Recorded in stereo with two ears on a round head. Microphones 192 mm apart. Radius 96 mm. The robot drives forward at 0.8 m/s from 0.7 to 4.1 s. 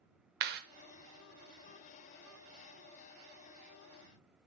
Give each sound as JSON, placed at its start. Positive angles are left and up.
{"t": 0.4, "sound": "a clap", "side_deg": -50, "distance_m": 0.9}